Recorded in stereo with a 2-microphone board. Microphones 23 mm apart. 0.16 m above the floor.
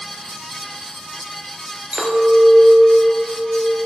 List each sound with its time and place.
1.9 s a clink: 40° right (ahead or behind), 1.6 m